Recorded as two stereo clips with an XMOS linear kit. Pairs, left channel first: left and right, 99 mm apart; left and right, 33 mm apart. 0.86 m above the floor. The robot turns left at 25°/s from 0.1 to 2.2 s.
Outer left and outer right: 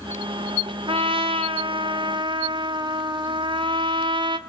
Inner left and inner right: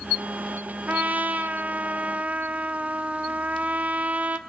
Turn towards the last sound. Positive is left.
turn(degrees=-115)